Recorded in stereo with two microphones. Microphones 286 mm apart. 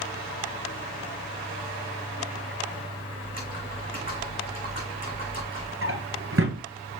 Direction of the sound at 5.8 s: 50° right (ahead or behind).